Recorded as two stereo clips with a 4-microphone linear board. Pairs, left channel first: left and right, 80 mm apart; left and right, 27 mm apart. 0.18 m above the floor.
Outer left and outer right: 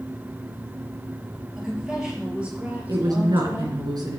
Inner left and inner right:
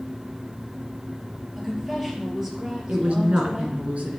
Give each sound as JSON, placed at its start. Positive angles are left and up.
{"t": 1.6, "sound": "a woman speaking", "side_deg": -5, "distance_m": 4.0}
{"t": 2.9, "sound": "a woman speaking", "side_deg": -55, "distance_m": 2.5}